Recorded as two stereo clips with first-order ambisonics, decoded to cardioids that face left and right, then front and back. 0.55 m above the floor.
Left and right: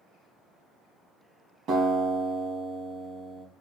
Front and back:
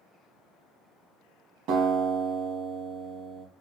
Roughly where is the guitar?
Behind right.